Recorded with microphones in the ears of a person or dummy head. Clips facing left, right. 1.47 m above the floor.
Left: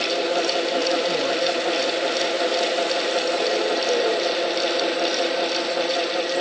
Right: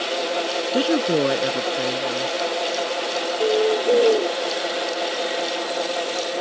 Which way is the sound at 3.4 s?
50° right (ahead or behind).